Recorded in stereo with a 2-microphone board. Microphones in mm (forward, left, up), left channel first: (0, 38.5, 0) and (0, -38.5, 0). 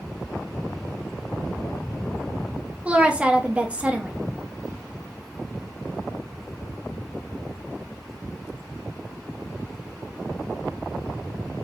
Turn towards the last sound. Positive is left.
turn(degrees=-15)  # may be behind; listen again after turning